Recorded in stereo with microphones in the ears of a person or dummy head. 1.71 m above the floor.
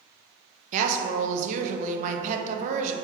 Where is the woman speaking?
40° right (ahead or behind), 0.5 m.